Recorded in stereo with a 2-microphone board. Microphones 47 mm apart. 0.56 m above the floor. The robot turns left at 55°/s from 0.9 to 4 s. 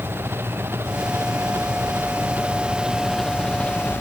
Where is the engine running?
55° right; by 4.0 s 130° left.